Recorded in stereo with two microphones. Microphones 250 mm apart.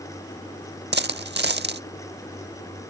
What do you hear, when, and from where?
0.9 s a dropped coin: 45° right (ahead or behind)